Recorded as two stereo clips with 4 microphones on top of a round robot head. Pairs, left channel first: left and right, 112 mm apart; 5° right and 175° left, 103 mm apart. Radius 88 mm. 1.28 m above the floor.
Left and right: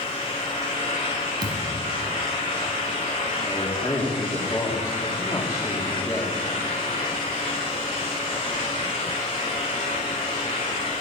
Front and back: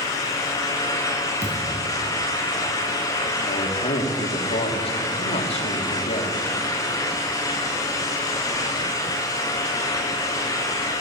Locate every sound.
1.4 s a thud: 140° right, 4 m
3.5 s a man speaking: 20° left, 2.5 m